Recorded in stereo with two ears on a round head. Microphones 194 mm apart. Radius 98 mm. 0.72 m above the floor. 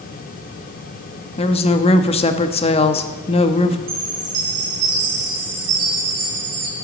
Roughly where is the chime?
Right.